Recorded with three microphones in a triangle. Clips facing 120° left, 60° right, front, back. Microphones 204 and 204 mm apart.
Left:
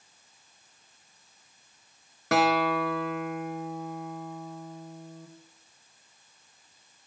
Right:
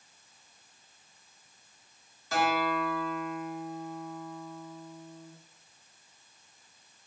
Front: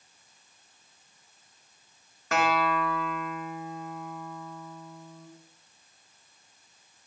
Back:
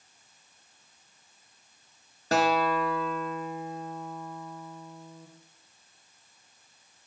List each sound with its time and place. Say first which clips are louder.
2.3 s a guitar: left 5 dB, back 2 dB; 130° left, 0.9 m